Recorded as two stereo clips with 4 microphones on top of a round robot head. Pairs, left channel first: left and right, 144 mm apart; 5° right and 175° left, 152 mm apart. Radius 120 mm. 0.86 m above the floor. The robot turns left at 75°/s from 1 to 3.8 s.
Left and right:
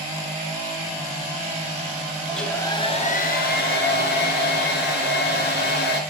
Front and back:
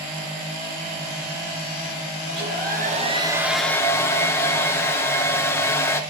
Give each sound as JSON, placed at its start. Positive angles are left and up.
{"t": 2.3, "sound": "a hair dryer", "azimuth_deg": -175, "distance_m": 2.5}